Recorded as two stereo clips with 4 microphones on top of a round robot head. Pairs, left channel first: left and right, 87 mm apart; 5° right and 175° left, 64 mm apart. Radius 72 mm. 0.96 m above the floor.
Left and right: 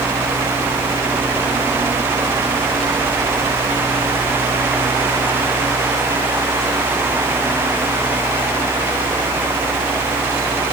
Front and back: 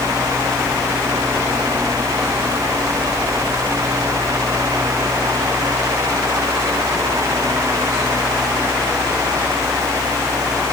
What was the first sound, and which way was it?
Only background noise.